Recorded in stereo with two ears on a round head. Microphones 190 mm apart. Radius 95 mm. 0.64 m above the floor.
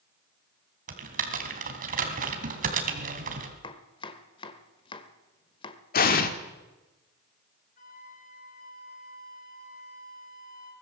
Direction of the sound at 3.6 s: 25° left (ahead or behind).